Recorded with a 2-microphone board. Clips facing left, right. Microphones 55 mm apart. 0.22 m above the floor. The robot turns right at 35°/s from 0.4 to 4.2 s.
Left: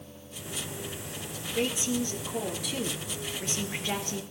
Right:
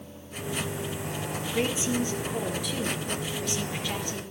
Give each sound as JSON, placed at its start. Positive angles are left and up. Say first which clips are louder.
{"t": 1.5, "sound": "a woman speaking", "louder": "right 1 dB", "azimuth_deg": -40, "distance_m": 4.0}